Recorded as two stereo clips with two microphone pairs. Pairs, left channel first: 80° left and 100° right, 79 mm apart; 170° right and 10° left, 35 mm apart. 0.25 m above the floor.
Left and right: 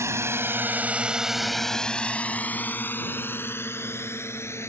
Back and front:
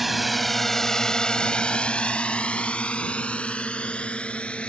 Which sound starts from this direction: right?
A drone, at 0.0 s.